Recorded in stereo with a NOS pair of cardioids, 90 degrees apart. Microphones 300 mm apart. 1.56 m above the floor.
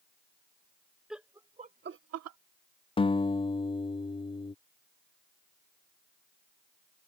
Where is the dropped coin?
I don't hear a dropped coin.